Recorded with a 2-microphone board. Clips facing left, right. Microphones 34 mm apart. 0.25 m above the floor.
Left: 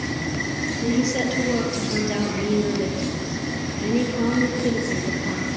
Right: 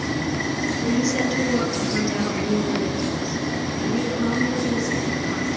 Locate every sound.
0.8 s a woman speaking: 10° left (ahead or behind), 7 m; by 5.6 s 45° left (ahead or behind), 6.5 m